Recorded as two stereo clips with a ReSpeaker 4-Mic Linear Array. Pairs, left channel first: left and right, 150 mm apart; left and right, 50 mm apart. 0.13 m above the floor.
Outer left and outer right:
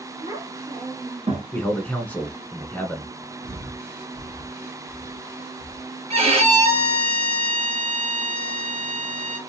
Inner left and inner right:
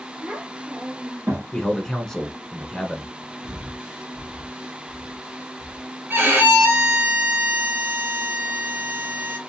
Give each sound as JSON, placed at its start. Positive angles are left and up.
{"t": 0.2, "sound": "a child speaking", "side_deg": -25, "distance_m": 1.6}
{"t": 1.5, "sound": "a man speaking", "side_deg": 10, "distance_m": 1.0}
{"t": 3.4, "sound": "breathing", "side_deg": -15, "distance_m": 1.3}
{"t": 6.1, "sound": "a violin", "side_deg": -40, "distance_m": 2.0}